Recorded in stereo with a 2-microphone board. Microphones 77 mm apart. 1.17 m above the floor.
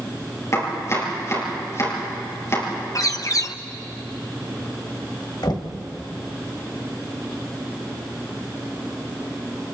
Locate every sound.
0.5 s chopping: 35° left (ahead or behind), 6.5 m
3.0 s a bird: 50° left (ahead or behind), 0.8 m
5.4 s knocking: 70° left (ahead or behind), 1.5 m